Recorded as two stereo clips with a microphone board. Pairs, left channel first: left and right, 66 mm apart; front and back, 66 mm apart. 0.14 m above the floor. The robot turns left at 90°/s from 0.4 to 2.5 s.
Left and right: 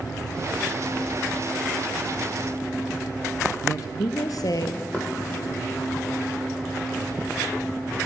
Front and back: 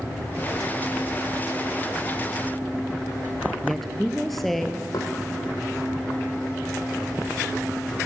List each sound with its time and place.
3.6 s a woman speaking: 85° left, 2 m
4.9 s knocking: 15° left, 4.5 m